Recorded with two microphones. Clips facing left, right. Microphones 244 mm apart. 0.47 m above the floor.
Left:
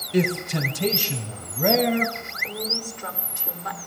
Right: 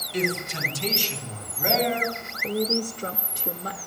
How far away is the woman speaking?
About 1.2 m.